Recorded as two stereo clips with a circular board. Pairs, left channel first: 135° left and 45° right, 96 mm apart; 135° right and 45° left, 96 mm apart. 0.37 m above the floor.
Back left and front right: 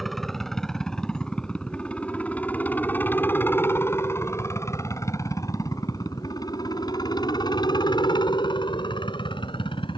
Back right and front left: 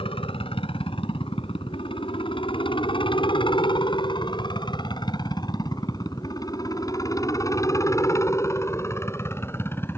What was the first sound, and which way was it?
A helicopter, 135° right.